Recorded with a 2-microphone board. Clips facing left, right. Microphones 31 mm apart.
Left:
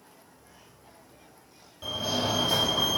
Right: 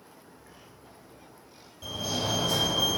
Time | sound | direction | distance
0.3 | a bird | 85° right | 3 m
1.8 | a fire alarm | 15° left (ahead or behind) | 3.5 m